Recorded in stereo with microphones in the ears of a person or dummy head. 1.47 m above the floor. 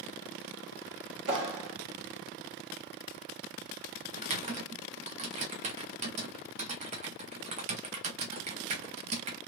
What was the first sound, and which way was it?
A clap, 70° right (ahead or behind).